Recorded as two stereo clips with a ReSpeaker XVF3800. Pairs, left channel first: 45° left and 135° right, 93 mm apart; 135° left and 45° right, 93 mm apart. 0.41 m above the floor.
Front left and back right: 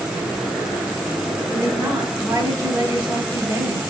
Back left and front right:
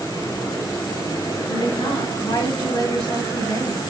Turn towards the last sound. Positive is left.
turn(degrees=160)